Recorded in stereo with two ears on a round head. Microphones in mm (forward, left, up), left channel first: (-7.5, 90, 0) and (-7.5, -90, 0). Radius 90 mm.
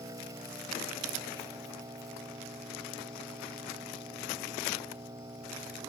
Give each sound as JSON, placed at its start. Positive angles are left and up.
{"t": 0.0, "sound": "an engine running", "side_deg": -20}